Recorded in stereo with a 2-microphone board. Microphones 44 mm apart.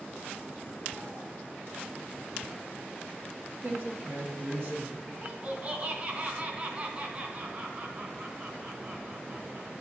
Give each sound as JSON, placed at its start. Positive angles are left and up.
{"t": 3.6, "sound": "a man speaking", "side_deg": -55, "distance_m": 2.0}
{"t": 5.1, "sound": "laughter", "side_deg": -40, "distance_m": 2.0}